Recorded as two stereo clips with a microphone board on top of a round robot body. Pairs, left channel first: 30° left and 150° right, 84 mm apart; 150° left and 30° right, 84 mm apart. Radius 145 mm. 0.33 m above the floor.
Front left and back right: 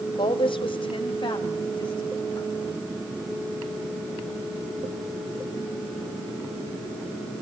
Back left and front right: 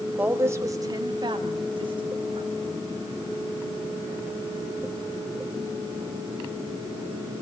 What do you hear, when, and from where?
0.2 s a woman speaking: 40° left, 2.0 m; by 2.9 s 15° right, 4.5 m